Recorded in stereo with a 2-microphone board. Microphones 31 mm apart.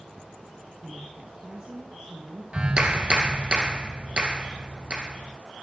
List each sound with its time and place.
0.8 s a woman speaking: 30° right (ahead or behind), 3 m; by 2.4 s 45° right (ahead or behind), 3 m
2.5 s a clap: 40° right (ahead or behind), 2 m